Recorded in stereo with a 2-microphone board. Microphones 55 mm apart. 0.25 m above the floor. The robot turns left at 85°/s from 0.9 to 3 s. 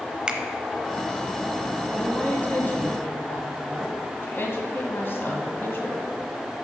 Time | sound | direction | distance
0.3 | a finger snap | 15° right (ahead or behind) | 0.7 m
1.9 | a woman speaking | 175° left | 1.6 m